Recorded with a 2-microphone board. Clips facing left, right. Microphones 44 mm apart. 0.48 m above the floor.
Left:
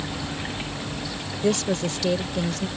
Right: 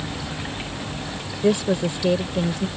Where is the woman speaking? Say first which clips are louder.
Right 3 dB; 15° right (ahead or behind).